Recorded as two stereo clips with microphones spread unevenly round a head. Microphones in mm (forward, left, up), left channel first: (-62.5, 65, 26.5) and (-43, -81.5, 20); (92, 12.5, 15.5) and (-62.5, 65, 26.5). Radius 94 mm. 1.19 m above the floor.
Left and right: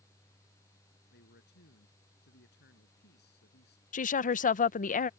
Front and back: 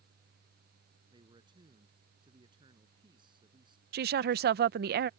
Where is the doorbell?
No doorbell in this recording.